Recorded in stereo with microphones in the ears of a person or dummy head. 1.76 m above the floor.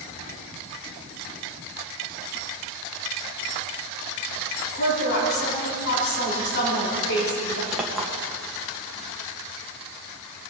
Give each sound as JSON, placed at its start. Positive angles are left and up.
{"t": 4.7, "sound": "a woman speaking", "side_deg": 60, "distance_m": 4.0}
{"t": 7.7, "sound": "a clink", "side_deg": 0, "distance_m": 1.1}